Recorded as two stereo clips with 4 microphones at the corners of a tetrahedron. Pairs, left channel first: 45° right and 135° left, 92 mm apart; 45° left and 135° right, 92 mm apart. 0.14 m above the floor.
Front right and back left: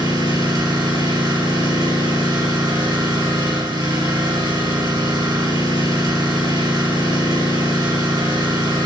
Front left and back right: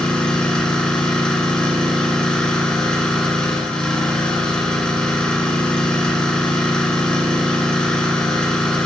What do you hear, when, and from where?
0.0 s an engine running: 120° left, 2 m